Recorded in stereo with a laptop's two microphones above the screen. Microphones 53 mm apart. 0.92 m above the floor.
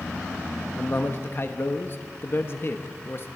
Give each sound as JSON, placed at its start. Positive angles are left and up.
{"t": 0.8, "sound": "a man speaking", "side_deg": 45, "distance_m": 1.3}